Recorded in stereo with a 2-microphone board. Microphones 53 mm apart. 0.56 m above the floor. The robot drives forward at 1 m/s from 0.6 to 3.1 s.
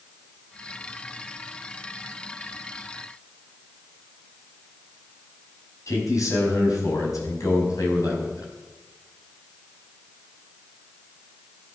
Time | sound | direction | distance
5.9 | a man speaking | 75° left (ahead or behind) | 4.5 m